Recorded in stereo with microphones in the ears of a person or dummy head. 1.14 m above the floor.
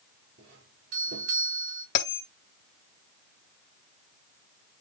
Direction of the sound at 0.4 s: 75° right (ahead or behind).